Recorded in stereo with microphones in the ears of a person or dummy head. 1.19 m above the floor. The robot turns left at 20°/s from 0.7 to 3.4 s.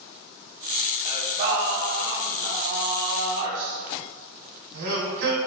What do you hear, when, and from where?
1.1 s singing: 40° right, 1.4 m; by 5.4 s 85° right, 1.4 m